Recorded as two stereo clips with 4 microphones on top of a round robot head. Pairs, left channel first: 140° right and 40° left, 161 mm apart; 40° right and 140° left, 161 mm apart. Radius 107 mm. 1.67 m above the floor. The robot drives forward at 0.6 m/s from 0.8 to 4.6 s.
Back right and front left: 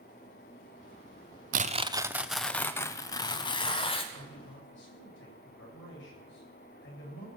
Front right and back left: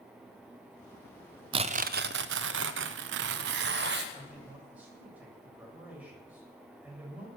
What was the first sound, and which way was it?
Tearing paper, 80° left.